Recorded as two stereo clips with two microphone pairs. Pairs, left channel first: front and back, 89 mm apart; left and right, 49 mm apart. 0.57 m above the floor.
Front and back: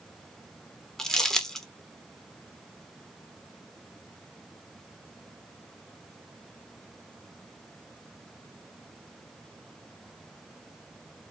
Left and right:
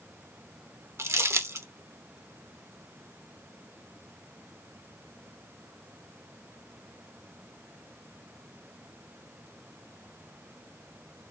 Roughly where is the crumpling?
Right.